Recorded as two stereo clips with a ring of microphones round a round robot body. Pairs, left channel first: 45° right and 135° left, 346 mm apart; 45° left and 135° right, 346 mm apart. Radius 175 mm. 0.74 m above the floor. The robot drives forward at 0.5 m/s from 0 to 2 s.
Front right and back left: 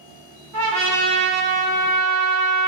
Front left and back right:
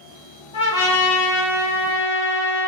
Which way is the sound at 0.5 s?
115° left.